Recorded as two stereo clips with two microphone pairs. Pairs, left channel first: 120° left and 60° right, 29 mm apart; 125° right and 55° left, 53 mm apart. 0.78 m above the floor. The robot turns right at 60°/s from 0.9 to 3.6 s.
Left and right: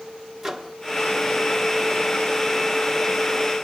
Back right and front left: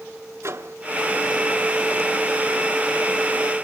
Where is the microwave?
15° left, 1.1 m.